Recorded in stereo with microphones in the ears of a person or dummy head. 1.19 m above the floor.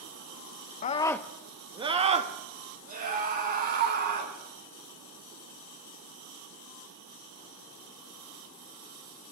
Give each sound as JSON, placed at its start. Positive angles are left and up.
{"t": 0.8, "sound": "a scream", "side_deg": 40, "distance_m": 0.6}